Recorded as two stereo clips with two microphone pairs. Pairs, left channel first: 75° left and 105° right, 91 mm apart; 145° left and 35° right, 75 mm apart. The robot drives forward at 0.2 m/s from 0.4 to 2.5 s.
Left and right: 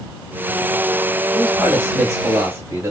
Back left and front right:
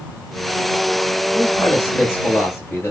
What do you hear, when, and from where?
1.3 s a man speaking: 160° right, 1.0 m; by 2.9 s 165° right, 1.2 m